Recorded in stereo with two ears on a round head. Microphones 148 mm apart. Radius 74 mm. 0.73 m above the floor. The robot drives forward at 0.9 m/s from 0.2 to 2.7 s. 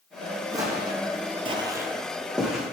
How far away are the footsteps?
About 2 m.